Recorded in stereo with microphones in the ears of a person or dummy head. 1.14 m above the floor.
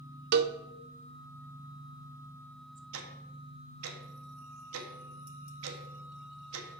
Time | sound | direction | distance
0.3 | a cowbell | 55° right (ahead or behind) | 0.6 m
2.9 | ticking | 85° right | 1.1 m